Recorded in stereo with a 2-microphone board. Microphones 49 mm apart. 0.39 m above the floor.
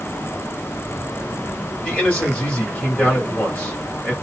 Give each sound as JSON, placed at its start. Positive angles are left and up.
{"t": 1.8, "sound": "a man speaking", "side_deg": 30, "distance_m": 2.0}